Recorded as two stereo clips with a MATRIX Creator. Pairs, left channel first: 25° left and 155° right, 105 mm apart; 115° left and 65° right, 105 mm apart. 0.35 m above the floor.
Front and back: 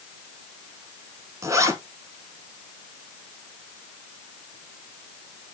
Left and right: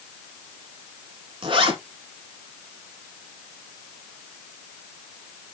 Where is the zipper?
100° right, 1.0 m.